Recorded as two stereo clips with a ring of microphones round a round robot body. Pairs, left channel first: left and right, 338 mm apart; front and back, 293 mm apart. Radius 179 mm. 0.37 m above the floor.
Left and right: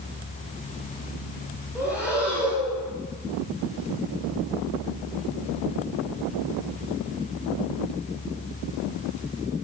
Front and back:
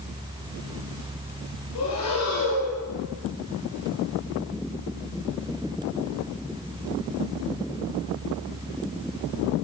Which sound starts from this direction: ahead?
Breathing, at 1.8 s.